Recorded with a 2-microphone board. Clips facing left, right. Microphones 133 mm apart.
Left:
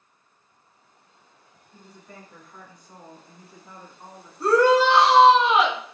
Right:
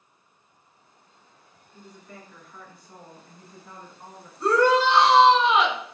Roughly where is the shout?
Centre.